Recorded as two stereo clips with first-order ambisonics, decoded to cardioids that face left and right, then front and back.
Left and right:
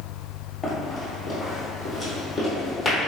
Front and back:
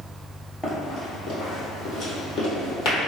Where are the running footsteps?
40° left, 1.3 m; by 3.1 s straight ahead, 2 m.